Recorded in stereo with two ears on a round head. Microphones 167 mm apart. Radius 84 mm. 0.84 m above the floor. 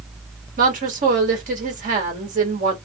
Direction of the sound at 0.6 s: 45° right (ahead or behind).